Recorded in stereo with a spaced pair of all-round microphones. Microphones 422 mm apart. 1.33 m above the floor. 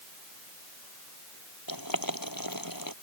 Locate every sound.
1.7 s boiling: 55° left (ahead or behind)